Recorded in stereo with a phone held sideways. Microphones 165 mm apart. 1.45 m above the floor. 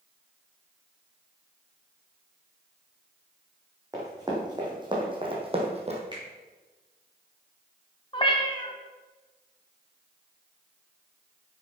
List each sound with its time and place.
3.9 s running footsteps: 20° right (ahead or behind), 4 m; by 6.0 s 40° right (ahead or behind), 2.5 m
6.1 s a finger snap: 30° right (ahead or behind), 5 m
8.1 s a cat meowing: 30° left (ahead or behind), 1.5 m